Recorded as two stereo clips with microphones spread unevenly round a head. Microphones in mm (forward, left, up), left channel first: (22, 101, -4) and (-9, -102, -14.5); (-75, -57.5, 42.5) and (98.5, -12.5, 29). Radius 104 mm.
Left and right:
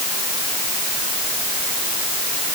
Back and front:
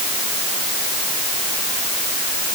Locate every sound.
Only background noise.